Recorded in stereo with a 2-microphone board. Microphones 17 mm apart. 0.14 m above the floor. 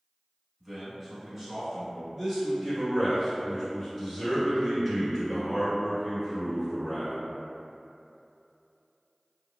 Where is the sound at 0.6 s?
15° right (ahead or behind), 1.1 m.